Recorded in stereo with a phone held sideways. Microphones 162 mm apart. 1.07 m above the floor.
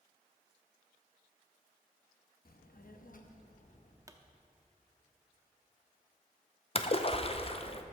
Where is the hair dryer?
I don't hear a hair dryer.